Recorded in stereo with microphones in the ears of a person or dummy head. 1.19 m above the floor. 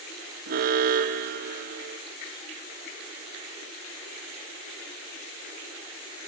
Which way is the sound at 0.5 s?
60° right (ahead or behind).